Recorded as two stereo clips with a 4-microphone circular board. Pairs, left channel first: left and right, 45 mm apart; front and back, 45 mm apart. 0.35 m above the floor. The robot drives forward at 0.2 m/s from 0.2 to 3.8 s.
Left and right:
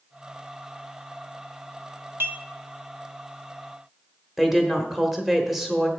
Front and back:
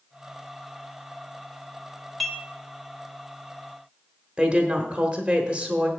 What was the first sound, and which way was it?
Dishes clattering, 90° right.